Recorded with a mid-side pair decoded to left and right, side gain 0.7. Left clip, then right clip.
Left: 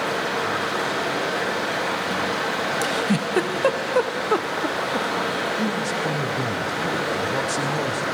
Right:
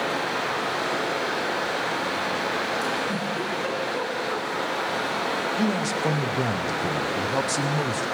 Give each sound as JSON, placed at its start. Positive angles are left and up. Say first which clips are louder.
{"t": 0.0, "sound": "running water", "louder": "left 2 dB", "azimuth_deg": 60, "distance_m": 7.0}
{"t": 2.8, "sound": "a giggle", "louder": "left 3 dB", "azimuth_deg": 50, "distance_m": 1.0}
{"t": 5.6, "sound": "a man speaking", "louder": "left 1 dB", "azimuth_deg": -15, "distance_m": 0.9}